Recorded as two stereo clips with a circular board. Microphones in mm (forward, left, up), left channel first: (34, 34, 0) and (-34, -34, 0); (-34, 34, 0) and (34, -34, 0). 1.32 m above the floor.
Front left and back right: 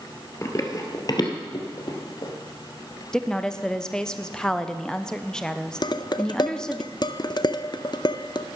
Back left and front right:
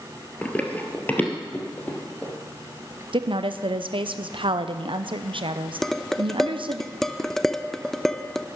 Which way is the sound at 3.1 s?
35° right.